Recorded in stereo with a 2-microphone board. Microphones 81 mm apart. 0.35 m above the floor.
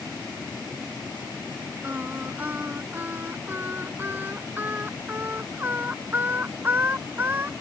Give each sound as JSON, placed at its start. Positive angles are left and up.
{"t": 1.8, "sound": "singing", "side_deg": -25}